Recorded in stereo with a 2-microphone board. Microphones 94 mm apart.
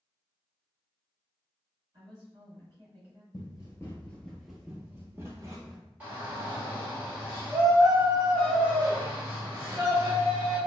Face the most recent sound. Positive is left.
turn(degrees=-15)  # may be behind; listen again after turning